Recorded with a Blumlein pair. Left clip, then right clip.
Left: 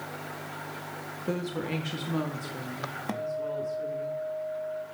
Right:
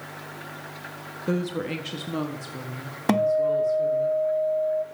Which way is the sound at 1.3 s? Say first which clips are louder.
Right 4 dB; 10° right.